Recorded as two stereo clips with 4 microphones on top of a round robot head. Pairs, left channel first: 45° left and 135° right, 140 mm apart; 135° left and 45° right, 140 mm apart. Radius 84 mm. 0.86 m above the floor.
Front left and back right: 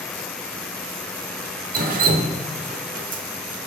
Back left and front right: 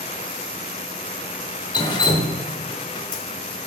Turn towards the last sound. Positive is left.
turn(degrees=-165)